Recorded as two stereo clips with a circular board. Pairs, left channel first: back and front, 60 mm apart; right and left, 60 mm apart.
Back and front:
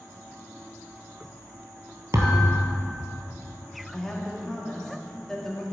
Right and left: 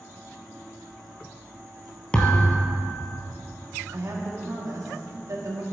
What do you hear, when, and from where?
2.1 s a thud: 15° right, 1.5 m
3.9 s a woman speaking: 100° left, 1.9 m